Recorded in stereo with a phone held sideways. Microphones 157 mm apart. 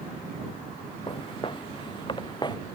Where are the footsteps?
35° left (ahead or behind); by 2.6 s 30° left (ahead or behind).